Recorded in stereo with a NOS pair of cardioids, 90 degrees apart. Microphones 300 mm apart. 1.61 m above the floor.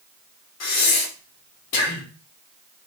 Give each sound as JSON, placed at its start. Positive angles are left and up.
{"t": 0.6, "sound": "breathing", "azimuth_deg": 60, "distance_m": 1.4}